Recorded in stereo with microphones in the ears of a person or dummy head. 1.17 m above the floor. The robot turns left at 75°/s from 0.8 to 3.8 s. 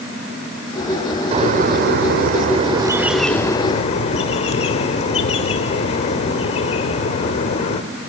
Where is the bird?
40° right, 1.4 m; by 7.8 s 135° left, 1.4 m.